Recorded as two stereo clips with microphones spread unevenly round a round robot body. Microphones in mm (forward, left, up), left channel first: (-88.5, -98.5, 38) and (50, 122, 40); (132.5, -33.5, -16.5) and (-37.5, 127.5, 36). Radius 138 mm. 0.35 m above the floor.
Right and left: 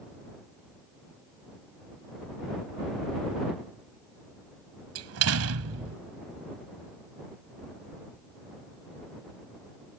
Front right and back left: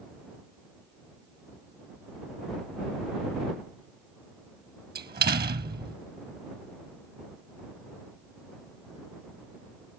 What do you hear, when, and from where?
5.0 s a door slam: 85° left